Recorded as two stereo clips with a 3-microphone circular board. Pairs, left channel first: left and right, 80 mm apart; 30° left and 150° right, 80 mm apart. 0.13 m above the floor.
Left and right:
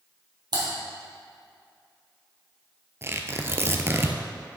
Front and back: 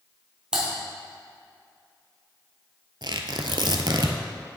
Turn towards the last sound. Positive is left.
turn(degrees=-145)